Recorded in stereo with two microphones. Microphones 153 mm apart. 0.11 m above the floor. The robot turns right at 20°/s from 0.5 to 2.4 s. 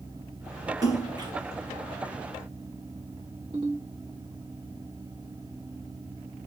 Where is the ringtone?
40° right (ahead or behind), 1.5 m.